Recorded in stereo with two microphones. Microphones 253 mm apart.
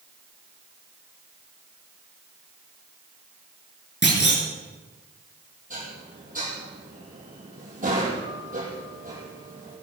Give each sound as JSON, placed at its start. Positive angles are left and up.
{"t": 4.0, "sound": "a clunk", "side_deg": 45, "distance_m": 4.0}
{"t": 5.7, "sound": "dishes clattering", "side_deg": -30, "distance_m": 5.5}